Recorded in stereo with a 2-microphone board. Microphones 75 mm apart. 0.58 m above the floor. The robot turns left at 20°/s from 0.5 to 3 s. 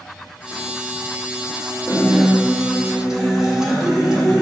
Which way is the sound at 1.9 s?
25° right (ahead or behind).